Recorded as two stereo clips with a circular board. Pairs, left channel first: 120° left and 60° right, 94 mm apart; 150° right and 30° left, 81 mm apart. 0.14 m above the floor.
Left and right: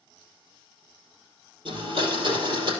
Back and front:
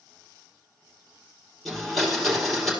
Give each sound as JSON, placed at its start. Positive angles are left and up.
{"t": 1.6, "sound": "a blender", "azimuth_deg": -60, "distance_m": 3.5}